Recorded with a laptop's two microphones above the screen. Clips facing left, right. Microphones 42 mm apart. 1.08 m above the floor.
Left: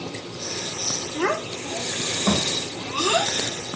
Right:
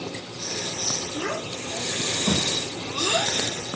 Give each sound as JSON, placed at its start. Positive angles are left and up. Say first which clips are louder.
{"t": 1.1, "sound": "a child speaking", "louder": "left 7 dB", "side_deg": 65, "distance_m": 0.8}